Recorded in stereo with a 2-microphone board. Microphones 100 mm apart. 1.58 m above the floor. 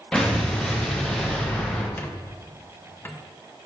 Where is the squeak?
20° left (ahead or behind), 0.5 m.